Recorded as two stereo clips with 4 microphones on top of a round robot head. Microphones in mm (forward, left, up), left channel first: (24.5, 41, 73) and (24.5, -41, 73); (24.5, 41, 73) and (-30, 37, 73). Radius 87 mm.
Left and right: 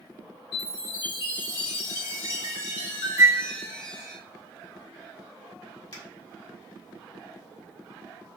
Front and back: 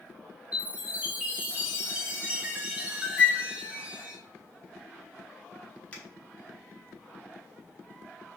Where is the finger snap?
70° left, 3.5 m.